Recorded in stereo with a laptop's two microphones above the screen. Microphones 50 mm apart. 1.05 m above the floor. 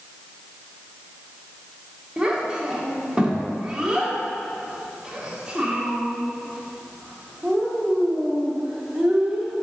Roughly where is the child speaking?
Centre.